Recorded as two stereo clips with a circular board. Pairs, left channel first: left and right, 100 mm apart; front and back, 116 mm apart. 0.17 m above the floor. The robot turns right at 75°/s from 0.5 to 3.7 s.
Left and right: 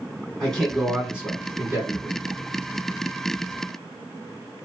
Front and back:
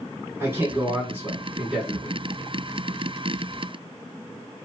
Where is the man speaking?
160° left, 1.4 m; by 2.2 s 75° right, 1.4 m.